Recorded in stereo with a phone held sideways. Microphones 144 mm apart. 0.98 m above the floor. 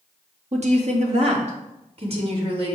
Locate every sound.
0.5 s a woman speaking: 55° right (ahead or behind), 2 m; by 2.8 s 45° right (ahead or behind), 3 m